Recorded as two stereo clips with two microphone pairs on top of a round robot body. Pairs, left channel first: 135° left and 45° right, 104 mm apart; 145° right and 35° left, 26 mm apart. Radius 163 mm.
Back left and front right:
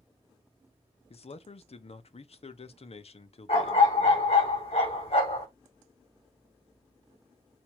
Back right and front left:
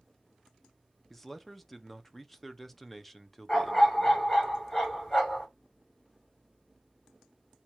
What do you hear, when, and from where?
1.1 s a man speaking: 125° left, 0.7 m
3.5 s a dog barking: 150° left, 3 m